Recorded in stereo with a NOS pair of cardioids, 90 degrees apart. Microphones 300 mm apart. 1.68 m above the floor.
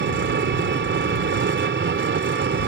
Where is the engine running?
40° right.